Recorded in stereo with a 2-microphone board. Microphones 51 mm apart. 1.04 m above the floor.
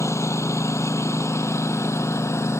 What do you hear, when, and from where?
0.0 s a lawn mower: 80° left; by 2.6 s 75° left (ahead or behind)